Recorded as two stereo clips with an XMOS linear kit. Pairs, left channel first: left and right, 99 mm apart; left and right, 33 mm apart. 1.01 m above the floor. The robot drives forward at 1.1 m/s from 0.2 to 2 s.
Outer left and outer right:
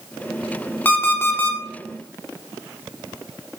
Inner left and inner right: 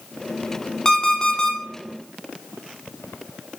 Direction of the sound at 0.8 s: 20° left (ahead or behind).